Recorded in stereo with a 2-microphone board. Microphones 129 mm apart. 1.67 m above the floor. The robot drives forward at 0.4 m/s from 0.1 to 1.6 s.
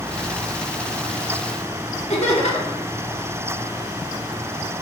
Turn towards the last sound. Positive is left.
turn(degrees=55)  # may be behind; listen again after turning